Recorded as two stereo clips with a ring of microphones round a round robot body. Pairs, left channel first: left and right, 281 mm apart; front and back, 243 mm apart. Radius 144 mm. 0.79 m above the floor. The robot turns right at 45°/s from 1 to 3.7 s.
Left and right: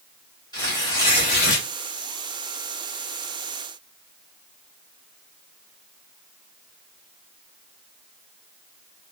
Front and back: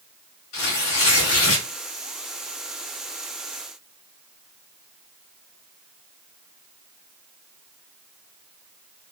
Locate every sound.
0.5 s tearing paper: 15° left, 1.1 m; by 1.7 s 45° left, 1.1 m